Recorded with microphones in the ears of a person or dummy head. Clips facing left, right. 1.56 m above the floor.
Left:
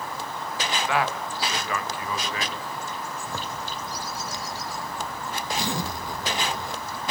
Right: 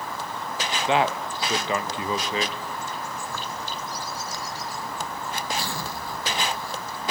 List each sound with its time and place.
0.9 s a man speaking: 25° right (ahead or behind), 1.8 m
3.3 s a zipper: 15° left (ahead or behind), 1.3 m